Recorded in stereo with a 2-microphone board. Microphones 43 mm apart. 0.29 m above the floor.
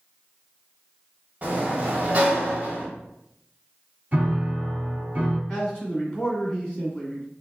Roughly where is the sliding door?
Right.